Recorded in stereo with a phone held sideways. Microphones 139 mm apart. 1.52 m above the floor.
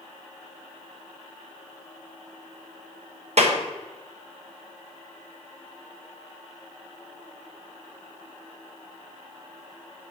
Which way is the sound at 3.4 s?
55° right (ahead or behind).